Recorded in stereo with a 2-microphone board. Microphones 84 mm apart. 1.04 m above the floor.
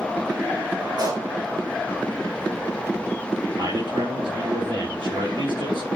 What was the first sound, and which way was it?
A pop, 55° right (ahead or behind).